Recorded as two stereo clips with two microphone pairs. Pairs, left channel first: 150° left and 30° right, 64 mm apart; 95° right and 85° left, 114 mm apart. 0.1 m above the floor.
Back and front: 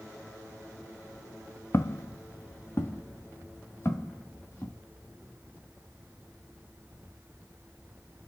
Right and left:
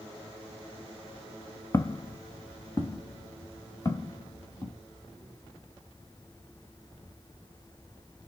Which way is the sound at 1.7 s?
155° right.